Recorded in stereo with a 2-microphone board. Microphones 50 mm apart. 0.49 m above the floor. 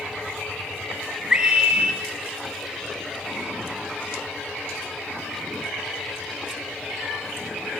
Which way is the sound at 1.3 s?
15° right (ahead or behind).